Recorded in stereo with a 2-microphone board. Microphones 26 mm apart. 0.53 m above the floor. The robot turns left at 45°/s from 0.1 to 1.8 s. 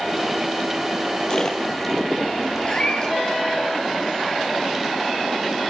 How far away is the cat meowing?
About 3.5 m.